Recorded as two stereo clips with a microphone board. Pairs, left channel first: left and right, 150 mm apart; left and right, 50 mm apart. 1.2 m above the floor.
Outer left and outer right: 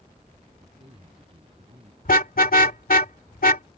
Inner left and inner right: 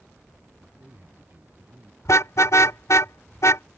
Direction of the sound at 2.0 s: 75° left (ahead or behind).